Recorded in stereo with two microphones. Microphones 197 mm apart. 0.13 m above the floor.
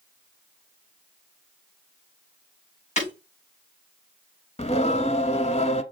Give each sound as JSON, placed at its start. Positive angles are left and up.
{"t": 3.0, "sound": "breaking glass", "side_deg": 35, "distance_m": 5.0}
{"t": 4.6, "sound": "singing", "side_deg": 30, "distance_m": 0.7}